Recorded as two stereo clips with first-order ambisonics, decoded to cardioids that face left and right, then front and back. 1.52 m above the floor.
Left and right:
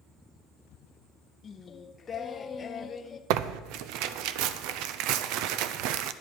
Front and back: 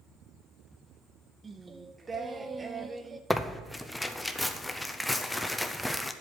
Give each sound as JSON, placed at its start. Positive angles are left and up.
{"t": 1.4, "sound": "singing", "azimuth_deg": 125, "distance_m": 0.6}
{"t": 3.3, "sound": "tearing paper", "azimuth_deg": -85, "distance_m": 0.5}